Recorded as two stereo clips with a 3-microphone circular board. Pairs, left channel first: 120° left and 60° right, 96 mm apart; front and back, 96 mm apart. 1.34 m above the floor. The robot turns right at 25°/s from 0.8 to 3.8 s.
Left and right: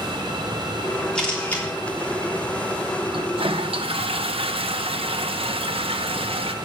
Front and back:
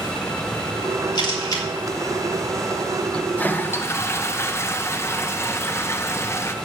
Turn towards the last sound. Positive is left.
turn(degrees=-65)